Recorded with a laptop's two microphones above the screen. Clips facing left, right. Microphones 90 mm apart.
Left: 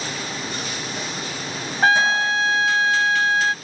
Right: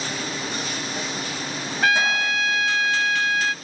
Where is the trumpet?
30° left (ahead or behind).